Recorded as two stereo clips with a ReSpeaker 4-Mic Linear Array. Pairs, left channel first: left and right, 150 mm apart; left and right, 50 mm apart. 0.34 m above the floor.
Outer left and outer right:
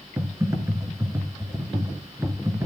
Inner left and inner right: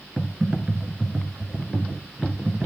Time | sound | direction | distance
0.2 | typing on a keyboard | 20° right (ahead or behind) | 3 m